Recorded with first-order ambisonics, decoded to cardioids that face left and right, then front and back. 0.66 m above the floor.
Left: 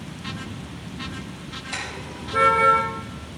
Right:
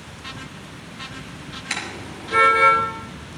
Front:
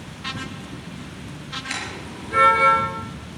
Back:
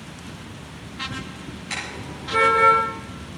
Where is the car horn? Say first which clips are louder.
Right 3 dB, back 3 dB; 75° right, 7 m; by 2.8 s 80° right, 7 m.